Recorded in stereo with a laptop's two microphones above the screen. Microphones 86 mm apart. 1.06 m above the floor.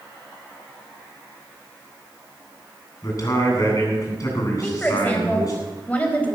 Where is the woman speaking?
15° left (ahead or behind), 4.5 m.